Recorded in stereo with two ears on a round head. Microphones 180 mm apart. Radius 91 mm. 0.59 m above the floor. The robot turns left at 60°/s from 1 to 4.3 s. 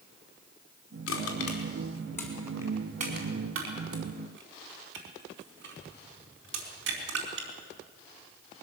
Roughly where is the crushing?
Left.